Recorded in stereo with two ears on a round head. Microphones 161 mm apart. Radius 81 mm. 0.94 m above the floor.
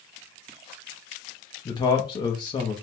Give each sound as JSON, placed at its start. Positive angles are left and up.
{"t": 1.6, "sound": "a man speaking", "side_deg": 25, "distance_m": 0.9}